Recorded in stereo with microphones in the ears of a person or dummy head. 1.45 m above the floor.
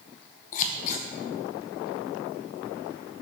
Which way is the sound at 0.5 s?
35° left (ahead or behind).